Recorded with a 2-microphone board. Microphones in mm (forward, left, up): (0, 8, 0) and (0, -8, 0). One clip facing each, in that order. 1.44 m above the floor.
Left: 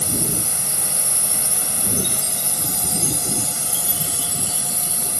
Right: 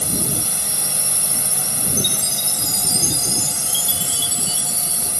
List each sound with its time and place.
0.0 s a drone: 30° right (ahead or behind)
2.0 s a chime: 50° right (ahead or behind)